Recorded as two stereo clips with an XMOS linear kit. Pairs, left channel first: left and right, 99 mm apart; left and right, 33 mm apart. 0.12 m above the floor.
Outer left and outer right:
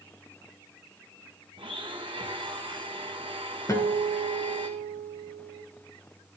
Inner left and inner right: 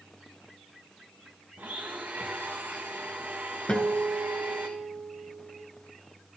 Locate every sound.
1.6 s a blender: 55° right (ahead or behind), 1.7 m
3.7 s a guitar: 30° left (ahead or behind), 1.7 m